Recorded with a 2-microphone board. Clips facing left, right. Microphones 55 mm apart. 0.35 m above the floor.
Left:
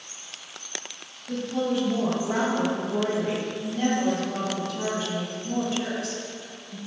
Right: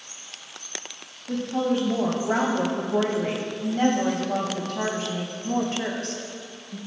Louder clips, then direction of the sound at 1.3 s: Right 2 dB; 35° right (ahead or behind).